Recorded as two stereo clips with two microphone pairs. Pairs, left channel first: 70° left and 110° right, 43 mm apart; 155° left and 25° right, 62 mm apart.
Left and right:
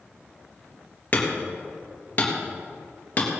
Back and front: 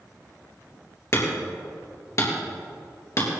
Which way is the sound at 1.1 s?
120° left.